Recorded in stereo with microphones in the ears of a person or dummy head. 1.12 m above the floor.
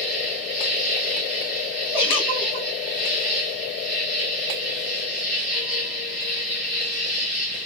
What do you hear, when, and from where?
0.0 s an insect: centre (ahead or behind), 1.1 m
1.9 s a giggle: 10° right (ahead or behind), 3 m